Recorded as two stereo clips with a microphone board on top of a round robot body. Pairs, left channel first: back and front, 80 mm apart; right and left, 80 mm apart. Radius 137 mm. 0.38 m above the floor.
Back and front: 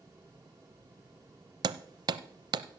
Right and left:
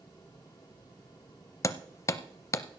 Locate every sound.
1.6 s hammering: 35° right, 0.5 m